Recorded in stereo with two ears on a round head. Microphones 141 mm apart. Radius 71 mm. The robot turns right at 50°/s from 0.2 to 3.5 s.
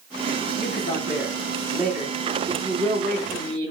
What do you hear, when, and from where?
0.6 s a man speaking: 115° left, 6 m; by 3.7 s 100° right, 6 m